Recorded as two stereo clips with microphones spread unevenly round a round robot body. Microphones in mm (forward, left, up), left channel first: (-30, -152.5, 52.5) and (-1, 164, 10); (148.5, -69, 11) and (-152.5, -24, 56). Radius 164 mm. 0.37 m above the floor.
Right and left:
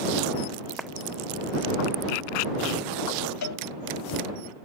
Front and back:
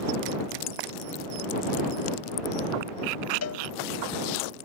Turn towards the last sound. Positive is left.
turn(degrees=-50)